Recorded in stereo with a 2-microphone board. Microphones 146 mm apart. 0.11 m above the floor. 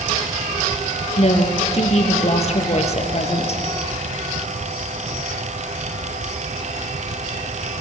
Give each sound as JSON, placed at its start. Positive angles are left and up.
{"t": 1.2, "sound": "a woman speaking", "side_deg": 50, "distance_m": 2.5}